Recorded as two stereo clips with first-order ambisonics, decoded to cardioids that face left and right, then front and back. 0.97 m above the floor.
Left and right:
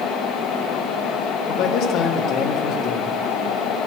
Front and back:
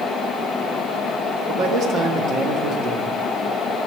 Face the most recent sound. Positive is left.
turn(degrees=130)